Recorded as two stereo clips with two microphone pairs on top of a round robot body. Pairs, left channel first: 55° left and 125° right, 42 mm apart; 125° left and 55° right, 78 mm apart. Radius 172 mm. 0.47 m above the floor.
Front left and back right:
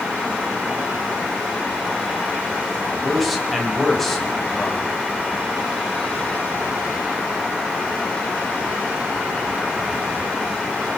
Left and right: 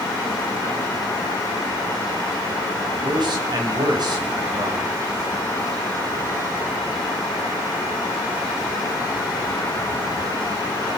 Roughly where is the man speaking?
Ahead right.